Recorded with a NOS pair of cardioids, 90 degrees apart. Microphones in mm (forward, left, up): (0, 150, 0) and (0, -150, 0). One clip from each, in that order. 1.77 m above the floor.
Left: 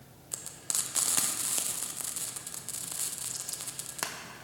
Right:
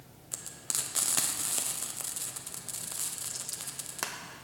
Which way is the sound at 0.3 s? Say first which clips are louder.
Left 1 dB; straight ahead.